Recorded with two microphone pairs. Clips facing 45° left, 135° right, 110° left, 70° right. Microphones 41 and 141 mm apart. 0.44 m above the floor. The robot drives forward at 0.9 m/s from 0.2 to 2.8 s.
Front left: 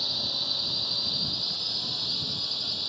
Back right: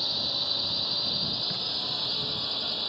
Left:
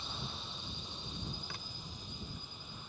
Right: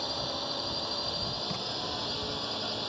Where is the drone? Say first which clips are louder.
Back right 1 dB, right 11 dB; 55° right; by 2.9 s 70° right.